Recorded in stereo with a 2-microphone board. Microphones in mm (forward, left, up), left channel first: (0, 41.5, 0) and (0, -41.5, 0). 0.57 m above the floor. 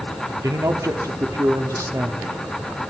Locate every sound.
0.4 s a man speaking: 45° right (ahead or behind), 1.3 m